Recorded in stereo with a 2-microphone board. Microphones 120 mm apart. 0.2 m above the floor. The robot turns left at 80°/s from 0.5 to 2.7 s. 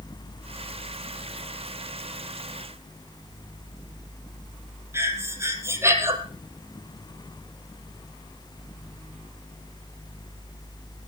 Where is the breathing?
20° right (ahead or behind), 3 m.